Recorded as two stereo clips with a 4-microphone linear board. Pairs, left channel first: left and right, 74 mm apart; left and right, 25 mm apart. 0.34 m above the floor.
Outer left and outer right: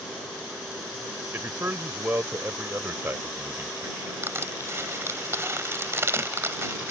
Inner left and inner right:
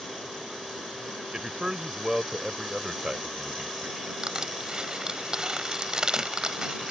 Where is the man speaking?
35° right (ahead or behind).